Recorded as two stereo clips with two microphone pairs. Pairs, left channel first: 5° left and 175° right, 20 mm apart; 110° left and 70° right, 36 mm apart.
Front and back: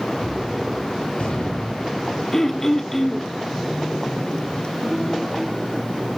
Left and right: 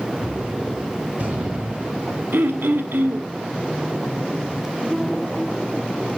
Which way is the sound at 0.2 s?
20° right.